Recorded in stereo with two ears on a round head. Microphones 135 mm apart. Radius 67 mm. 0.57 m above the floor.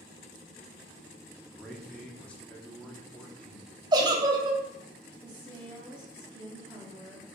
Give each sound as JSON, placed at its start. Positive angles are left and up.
{"t": 1.4, "sound": "a man speaking", "side_deg": 10, "distance_m": 0.7}
{"t": 3.9, "sound": "a giggle", "side_deg": -25, "distance_m": 0.5}
{"t": 5.2, "sound": "a woman speaking", "side_deg": -10, "distance_m": 0.9}